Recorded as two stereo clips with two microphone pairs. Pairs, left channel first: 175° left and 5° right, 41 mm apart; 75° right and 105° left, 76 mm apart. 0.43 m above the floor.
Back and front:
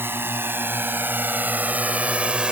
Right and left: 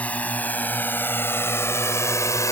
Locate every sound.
0.0 s a drone: 5° right; by 2.5 s 60° right